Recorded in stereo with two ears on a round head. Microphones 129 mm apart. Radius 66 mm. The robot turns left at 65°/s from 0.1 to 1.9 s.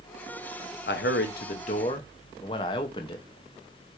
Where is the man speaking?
100° left, 0.9 m; by 3.2 s 30° left, 0.9 m.